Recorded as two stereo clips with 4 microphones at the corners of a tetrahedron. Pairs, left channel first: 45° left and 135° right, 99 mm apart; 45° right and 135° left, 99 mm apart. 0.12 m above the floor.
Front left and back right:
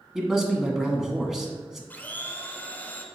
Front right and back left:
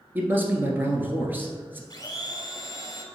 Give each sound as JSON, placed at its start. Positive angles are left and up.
{"t": 0.1, "sound": "a man speaking", "azimuth_deg": 145, "distance_m": 1.1}
{"t": 1.9, "sound": "a blender", "azimuth_deg": -20, "distance_m": 0.8}